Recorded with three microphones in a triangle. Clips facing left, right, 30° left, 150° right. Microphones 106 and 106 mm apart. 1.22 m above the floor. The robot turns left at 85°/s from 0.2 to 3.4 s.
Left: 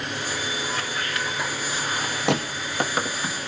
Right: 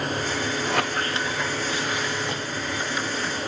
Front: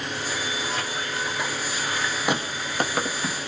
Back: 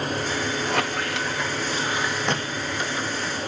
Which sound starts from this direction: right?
A squeak, at 0.7 s.